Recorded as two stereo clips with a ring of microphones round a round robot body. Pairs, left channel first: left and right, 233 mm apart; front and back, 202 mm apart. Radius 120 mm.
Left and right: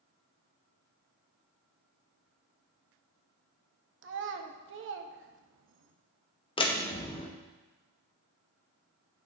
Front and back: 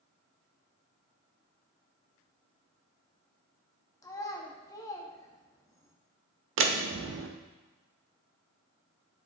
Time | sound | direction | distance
4.0 | a child speaking | 70° right | 0.7 m
6.6 | a door slam | 160° left | 0.7 m